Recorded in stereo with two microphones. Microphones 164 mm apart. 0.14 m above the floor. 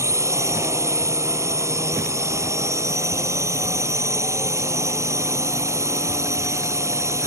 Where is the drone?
15° right (ahead or behind).